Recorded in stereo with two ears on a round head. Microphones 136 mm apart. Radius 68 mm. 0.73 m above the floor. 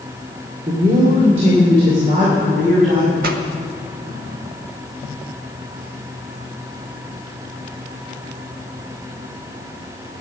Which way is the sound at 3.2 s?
65° right (ahead or behind).